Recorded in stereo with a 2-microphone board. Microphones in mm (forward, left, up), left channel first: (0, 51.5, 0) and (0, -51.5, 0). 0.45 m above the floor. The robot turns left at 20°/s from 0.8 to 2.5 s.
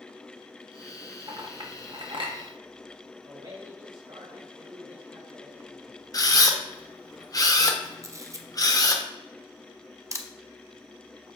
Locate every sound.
1.3 s a clink: 45° right (ahead or behind), 1.1 m; by 2.4 s 60° right (ahead or behind), 1.1 m
3.2 s a man speaking: 50° right (ahead or behind), 1.9 m
6.1 s a camera shutter: 35° left (ahead or behind), 0.7 m
8.0 s a camera shutter: 30° right (ahead or behind), 0.6 m